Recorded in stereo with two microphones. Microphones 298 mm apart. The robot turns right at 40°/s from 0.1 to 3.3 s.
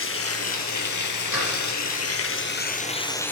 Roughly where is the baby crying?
No baby crying in this recording.